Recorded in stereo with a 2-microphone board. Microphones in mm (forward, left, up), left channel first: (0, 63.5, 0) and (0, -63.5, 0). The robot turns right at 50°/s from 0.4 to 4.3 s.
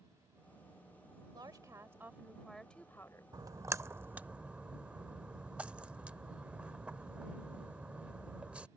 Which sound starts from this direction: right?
A splash, at 3.3 s.